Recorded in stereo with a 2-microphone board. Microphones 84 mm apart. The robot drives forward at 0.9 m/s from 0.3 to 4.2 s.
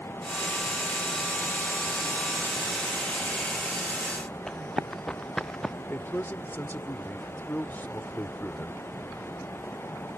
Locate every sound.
4.5 s running footsteps: 5° left (ahead or behind)
5.9 s a man speaking: 25° left (ahead or behind)